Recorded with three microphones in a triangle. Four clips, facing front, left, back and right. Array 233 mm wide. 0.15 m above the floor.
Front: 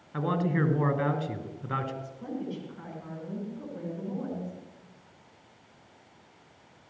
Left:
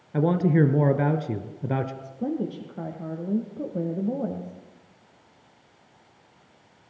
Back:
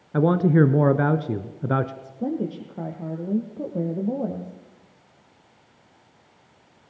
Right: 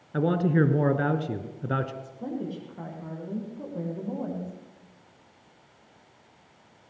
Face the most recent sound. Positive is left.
turn(degrees=150)